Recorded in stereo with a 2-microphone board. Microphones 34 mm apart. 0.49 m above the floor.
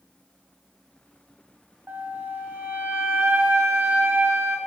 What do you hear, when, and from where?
1.9 s a flute: 80° right, 0.9 m